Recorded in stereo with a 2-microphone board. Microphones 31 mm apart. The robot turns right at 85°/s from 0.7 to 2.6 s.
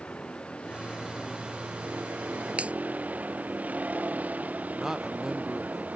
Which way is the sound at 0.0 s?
145° left.